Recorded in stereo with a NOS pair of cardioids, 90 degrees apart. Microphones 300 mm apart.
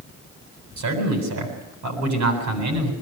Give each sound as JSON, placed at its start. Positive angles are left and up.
{"t": 0.8, "sound": "a man speaking", "azimuth_deg": -70, "distance_m": 8.5}